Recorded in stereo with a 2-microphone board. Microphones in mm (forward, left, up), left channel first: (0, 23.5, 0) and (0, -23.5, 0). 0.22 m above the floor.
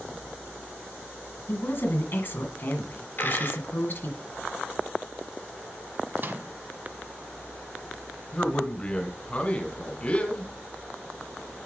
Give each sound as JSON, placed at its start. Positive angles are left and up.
{"t": 1.5, "sound": "a woman speaking", "side_deg": 50, "distance_m": 1.6}
{"t": 3.2, "sound": "a dropped coin", "side_deg": 55, "distance_m": 2.0}
{"t": 6.2, "sound": "a microwave", "side_deg": -45, "distance_m": 1.1}
{"t": 8.3, "sound": "a man speaking", "side_deg": 30, "distance_m": 2.0}